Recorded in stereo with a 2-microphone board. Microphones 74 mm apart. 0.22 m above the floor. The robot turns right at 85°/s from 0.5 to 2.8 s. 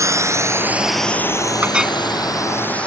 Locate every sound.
0.0 s a drone: 45° right (ahead or behind); by 2.9 s 15° left (ahead or behind)
1.6 s a clink: 25° right (ahead or behind); by 2.0 s centre (ahead or behind)